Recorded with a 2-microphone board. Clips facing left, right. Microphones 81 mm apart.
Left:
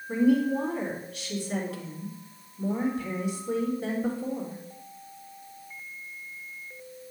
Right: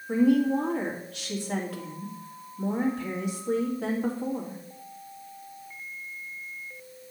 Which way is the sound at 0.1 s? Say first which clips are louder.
Right 1 dB; 70° right (ahead or behind).